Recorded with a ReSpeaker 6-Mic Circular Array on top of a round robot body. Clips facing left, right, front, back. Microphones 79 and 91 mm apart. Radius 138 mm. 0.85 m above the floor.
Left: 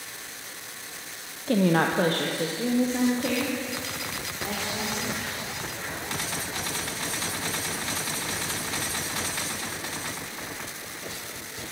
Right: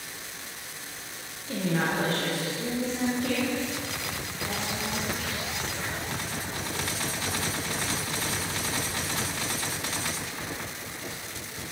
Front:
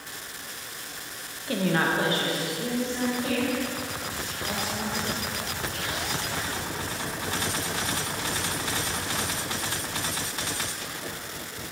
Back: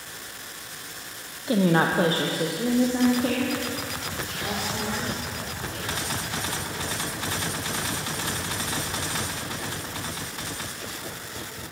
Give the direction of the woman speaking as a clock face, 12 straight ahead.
8 o'clock.